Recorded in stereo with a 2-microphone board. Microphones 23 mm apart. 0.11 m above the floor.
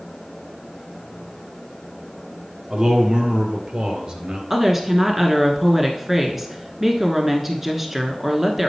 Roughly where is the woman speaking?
Centre.